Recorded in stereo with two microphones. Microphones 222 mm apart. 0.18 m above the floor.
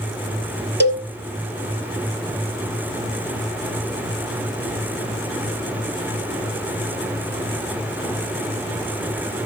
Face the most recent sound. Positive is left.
turn(degrees=-55)  # may be behind; listen again after turning